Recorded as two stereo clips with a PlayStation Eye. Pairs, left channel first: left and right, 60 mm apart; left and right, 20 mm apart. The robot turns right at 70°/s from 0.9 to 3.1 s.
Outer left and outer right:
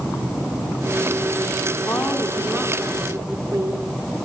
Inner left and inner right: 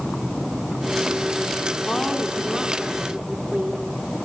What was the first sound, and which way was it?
A woman speaking, 120° left.